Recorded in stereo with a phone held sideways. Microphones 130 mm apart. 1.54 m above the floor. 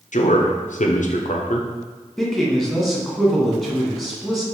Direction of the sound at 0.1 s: 70° left (ahead or behind).